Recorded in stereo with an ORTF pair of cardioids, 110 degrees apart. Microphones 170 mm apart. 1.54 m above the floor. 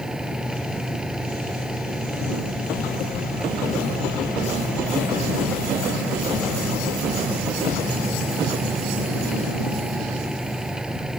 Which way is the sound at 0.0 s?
5° right.